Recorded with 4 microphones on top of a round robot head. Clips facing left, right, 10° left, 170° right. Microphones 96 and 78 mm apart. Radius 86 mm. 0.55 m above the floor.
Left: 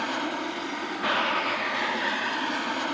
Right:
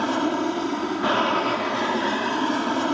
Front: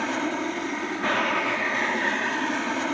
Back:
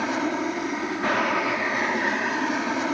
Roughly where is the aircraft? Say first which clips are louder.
Right 7 dB, back 2 dB; right.